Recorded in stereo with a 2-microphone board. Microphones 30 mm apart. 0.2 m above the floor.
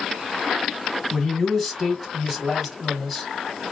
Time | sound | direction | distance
1.1 | a man speaking | centre (ahead or behind) | 1.8 m